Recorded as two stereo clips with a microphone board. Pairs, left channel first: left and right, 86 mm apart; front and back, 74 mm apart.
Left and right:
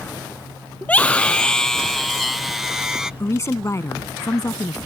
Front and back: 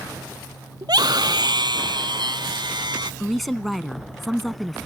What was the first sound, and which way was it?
A scream, 160° left.